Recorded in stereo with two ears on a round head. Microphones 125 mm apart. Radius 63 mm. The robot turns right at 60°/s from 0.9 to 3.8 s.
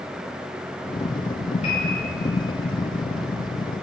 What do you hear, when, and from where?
1.6 s a piano: 55° left (ahead or behind), 3 m; by 2.0 s 35° left (ahead or behind), 3 m